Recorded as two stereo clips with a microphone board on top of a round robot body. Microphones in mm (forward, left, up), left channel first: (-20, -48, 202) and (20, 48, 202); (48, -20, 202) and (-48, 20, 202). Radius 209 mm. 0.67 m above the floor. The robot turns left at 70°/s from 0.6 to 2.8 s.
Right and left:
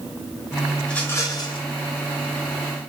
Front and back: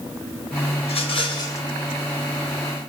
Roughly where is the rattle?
Ahead right.